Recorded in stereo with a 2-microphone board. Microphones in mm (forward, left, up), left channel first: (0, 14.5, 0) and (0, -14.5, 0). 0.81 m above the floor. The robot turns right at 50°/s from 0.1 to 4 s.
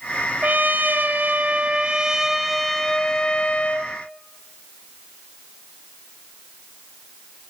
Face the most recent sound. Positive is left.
turn(degrees=70)